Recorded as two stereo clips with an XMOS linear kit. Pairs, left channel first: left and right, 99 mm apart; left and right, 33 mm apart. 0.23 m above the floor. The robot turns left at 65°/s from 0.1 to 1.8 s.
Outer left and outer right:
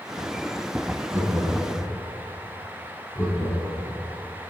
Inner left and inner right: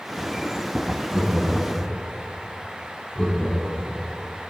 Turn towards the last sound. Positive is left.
turn(degrees=30)  # may be behind; listen again after turning